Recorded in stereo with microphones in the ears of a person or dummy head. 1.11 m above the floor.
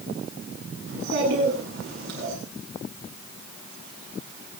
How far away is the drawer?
I don't hear a drawer.